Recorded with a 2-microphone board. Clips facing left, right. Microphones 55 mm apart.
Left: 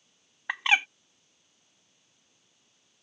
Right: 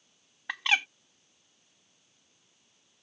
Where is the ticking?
No ticking in this recording.